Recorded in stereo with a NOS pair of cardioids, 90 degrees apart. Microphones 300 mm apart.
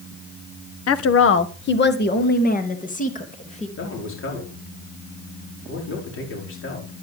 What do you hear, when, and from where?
0.9 s a woman speaking: 55° left, 1.2 m; by 3.7 s 20° left, 3 m
3.8 s a man speaking: 45° left, 5 m